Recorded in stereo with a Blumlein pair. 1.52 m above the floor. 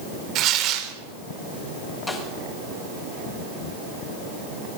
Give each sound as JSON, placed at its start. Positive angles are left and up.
{"t": 0.3, "sound": "tearing paper", "azimuth_deg": -35, "distance_m": 4.0}
{"t": 2.1, "sound": "a snare drum", "azimuth_deg": 5, "distance_m": 8.5}